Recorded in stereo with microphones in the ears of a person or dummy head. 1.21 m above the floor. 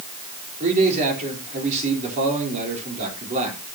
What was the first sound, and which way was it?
A man speaking, 40° right (ahead or behind).